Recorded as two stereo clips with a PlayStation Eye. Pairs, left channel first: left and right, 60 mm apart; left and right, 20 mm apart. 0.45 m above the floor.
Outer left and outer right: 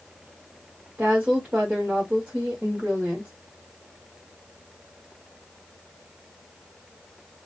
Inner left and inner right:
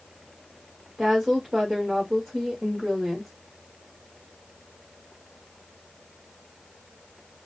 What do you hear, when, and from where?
1.0 s a woman speaking: 25° right (ahead or behind), 1.9 m